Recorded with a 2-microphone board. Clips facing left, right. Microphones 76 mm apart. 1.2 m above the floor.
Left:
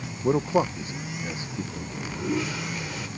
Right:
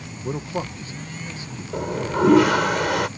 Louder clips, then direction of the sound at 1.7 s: Right 11 dB; 80° right.